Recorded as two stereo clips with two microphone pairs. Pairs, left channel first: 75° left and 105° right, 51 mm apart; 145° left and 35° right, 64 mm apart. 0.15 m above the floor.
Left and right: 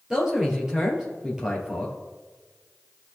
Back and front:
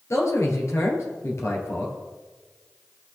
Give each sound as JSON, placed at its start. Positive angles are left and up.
{"t": 0.1, "sound": "a man speaking", "azimuth_deg": 180, "distance_m": 3.0}